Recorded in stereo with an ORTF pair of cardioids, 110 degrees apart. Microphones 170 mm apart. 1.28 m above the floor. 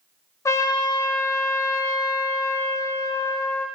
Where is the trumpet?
20° left, 0.6 m.